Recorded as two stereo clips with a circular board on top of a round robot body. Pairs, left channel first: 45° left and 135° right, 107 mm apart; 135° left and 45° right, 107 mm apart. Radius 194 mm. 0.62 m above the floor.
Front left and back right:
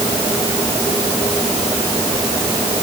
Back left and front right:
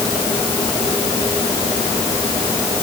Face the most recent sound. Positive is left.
No sound to turn to.